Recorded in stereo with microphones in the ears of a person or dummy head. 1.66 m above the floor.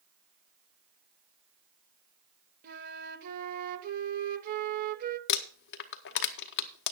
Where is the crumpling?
60° left (ahead or behind), 0.8 m.